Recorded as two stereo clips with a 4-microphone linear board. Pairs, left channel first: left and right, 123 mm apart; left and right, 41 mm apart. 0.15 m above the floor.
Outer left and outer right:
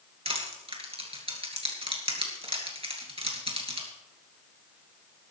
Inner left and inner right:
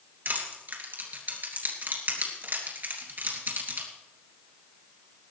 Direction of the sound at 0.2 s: 50° right (ahead or behind).